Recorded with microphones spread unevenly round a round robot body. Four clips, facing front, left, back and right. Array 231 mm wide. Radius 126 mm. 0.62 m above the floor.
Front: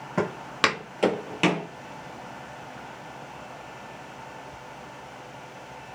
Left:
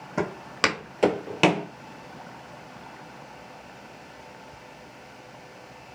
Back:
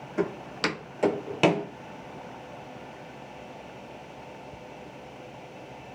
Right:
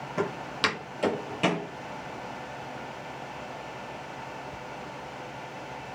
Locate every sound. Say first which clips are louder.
0.2 s footsteps: left 3 dB, front 3 dB; 20° left, 1.3 m; by 1.7 s 145° left, 0.8 m